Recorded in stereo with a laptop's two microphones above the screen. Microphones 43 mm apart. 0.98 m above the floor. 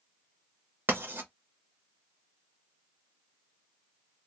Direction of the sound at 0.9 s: 55° right (ahead or behind).